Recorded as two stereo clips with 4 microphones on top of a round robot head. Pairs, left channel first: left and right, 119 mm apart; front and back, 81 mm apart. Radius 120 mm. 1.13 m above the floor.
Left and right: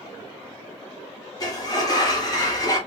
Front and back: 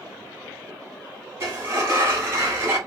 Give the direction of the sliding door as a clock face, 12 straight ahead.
8 o'clock.